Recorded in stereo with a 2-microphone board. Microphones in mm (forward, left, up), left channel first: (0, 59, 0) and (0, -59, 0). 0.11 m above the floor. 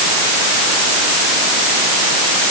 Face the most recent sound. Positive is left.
No sound to turn to.